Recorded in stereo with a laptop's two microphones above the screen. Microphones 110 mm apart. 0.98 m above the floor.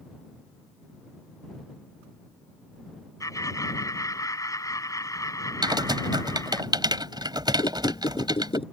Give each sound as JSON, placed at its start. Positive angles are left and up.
{"t": 3.2, "sound": "laughter", "side_deg": 30}
{"t": 5.6, "sound": "typing on a keyboard", "side_deg": -40}
{"t": 7.6, "sound": "a squeak", "side_deg": 55}